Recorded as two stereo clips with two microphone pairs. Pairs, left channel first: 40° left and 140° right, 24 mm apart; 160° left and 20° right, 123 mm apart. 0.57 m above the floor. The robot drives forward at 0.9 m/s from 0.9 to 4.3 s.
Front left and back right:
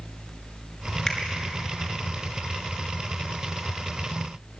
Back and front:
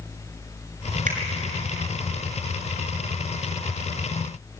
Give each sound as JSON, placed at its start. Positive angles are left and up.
{"t": 1.1, "sound": "a finger snap", "azimuth_deg": -20, "distance_m": 5.5}